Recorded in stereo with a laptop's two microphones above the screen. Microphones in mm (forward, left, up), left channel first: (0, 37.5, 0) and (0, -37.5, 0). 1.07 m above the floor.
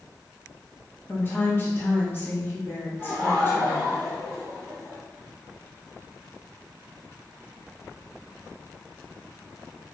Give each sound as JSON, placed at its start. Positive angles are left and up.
{"t": 1.1, "sound": "a woman speaking", "side_deg": 30, "distance_m": 1.4}
{"t": 3.0, "sound": "laughter", "side_deg": 15, "distance_m": 1.5}